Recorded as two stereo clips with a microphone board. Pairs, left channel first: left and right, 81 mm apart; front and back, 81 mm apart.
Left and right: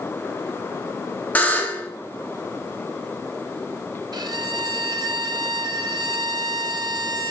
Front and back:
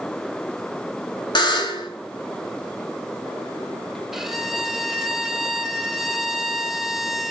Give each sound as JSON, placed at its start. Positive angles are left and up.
{"t": 1.4, "sound": "a buzzer", "azimuth_deg": 20, "distance_m": 1.4}
{"t": 4.1, "sound": "a violin", "azimuth_deg": -95, "distance_m": 0.7}